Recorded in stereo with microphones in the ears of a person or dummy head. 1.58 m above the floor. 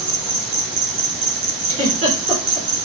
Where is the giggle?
40° right (ahead or behind), 1.9 m.